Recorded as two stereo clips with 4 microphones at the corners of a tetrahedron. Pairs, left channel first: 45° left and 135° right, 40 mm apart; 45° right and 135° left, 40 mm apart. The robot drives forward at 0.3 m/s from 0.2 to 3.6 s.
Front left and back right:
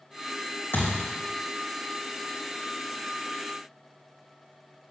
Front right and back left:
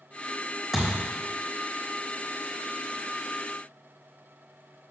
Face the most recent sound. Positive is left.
turn(degrees=70)